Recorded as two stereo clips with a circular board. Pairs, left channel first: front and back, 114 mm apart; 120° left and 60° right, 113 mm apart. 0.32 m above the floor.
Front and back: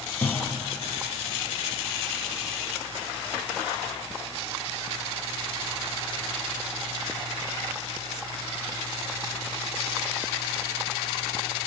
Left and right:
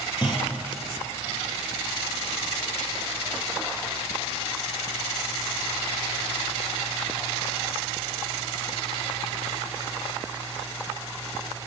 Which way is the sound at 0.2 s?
75° left.